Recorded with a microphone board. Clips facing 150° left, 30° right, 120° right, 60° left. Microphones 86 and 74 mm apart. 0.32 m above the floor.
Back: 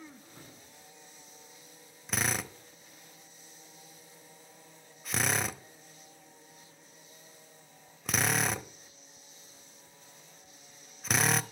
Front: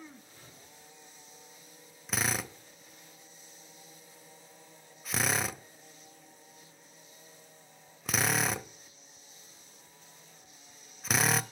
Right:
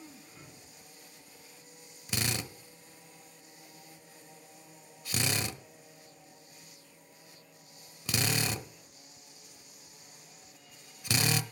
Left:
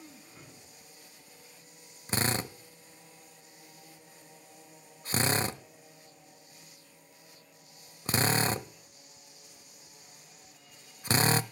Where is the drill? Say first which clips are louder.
Even, left 5 dB; 60° left, 0.9 m.